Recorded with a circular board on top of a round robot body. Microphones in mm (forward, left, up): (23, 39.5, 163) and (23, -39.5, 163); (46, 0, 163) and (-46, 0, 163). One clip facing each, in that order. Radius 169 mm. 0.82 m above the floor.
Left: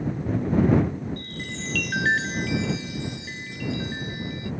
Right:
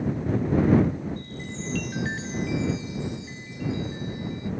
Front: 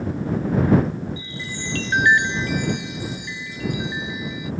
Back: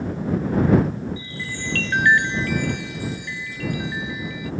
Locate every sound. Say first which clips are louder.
1.2 s a chime: left 1 dB, even; 70° left